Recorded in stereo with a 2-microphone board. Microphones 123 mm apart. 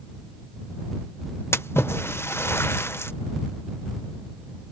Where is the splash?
20° left (ahead or behind).